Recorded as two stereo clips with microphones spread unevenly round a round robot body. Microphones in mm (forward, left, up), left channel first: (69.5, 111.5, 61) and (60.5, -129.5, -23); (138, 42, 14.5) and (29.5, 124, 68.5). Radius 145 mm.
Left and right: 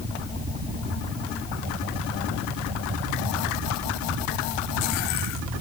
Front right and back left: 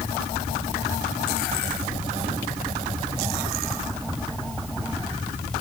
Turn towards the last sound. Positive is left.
No sound to turn to.